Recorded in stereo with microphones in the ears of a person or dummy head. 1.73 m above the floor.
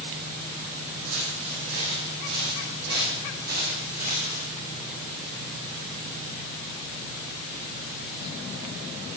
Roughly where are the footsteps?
Right.